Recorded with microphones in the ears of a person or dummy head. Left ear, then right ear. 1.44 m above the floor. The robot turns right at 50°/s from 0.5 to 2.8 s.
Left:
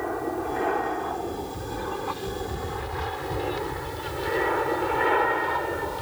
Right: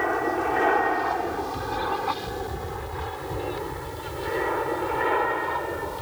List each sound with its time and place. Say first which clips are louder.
0.0 s an aircraft: right 5 dB; 65° right (ahead or behind); by 6.0 s 5° left (ahead or behind)